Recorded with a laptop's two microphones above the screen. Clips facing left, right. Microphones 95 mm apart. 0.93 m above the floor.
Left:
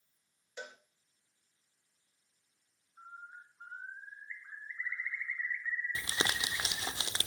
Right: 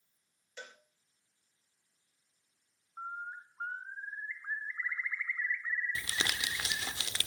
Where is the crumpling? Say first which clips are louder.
Left 2 dB; 30° left (ahead or behind), 0.9 m.